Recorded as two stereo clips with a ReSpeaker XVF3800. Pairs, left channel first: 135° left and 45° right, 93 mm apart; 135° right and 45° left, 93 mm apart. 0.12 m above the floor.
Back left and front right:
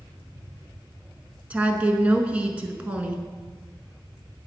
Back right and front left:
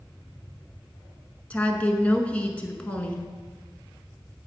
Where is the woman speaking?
90° right, 1.1 m.